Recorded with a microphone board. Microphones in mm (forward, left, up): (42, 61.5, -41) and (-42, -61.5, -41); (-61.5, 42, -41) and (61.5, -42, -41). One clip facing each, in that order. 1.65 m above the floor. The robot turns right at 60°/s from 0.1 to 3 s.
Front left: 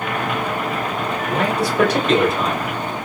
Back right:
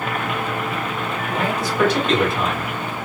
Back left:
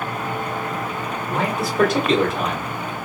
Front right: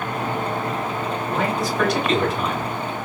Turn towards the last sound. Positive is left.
turn(degrees=165)